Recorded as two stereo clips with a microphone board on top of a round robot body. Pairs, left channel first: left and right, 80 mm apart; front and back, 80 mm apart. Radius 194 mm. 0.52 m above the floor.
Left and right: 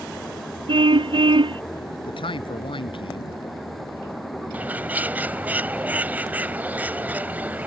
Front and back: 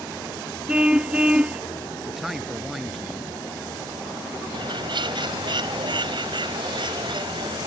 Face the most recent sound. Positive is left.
turn(degrees=-160)